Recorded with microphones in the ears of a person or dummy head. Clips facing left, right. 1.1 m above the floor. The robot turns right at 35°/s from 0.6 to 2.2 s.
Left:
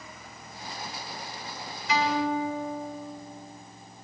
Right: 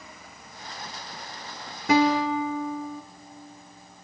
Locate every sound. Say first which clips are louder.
1.9 s a guitar: right 5 dB; 50° right (ahead or behind), 1.6 m; by 3.0 s 60° right (ahead or behind), 1.6 m